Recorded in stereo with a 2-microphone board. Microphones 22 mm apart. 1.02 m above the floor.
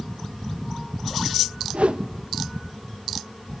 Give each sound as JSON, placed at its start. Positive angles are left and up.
{"t": 1.7, "sound": "a whoosh", "side_deg": -65, "distance_m": 0.8}